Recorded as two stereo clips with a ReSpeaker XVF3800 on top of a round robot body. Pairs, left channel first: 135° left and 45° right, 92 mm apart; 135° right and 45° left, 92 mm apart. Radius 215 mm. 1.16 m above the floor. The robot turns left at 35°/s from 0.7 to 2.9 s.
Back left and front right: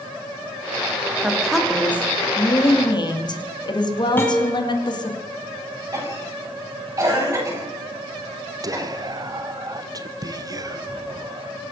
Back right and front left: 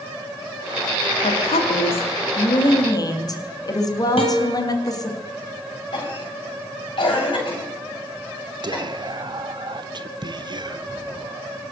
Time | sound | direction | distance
1.2 | a woman speaking | 130° right | 2.5 m
4.2 | a guitar | 155° right | 1.1 m
5.9 | a cough | 100° right | 9 m
8.6 | whispering | 5° left | 0.9 m